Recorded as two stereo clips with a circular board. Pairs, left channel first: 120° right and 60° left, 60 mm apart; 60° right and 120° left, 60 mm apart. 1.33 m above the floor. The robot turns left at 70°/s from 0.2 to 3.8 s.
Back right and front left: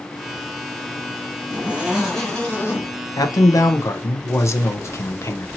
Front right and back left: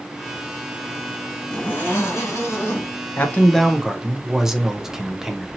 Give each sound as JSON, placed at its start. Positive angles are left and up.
{"t": 1.5, "sound": "a zipper", "azimuth_deg": 10, "distance_m": 1.6}
{"t": 3.2, "sound": "a man speaking", "azimuth_deg": -115, "distance_m": 0.6}